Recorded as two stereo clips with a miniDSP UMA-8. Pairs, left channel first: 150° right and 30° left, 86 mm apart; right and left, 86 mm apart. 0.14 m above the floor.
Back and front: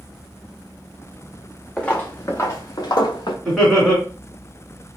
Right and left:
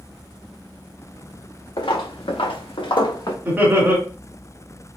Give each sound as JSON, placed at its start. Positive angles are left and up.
{"t": 1.8, "sound": "footsteps", "azimuth_deg": -70, "distance_m": 1.0}
{"t": 3.5, "sound": "laughter", "azimuth_deg": 120, "distance_m": 1.7}